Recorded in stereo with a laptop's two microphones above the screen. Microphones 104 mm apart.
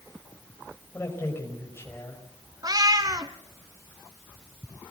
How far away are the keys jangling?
No keys jangling in this recording.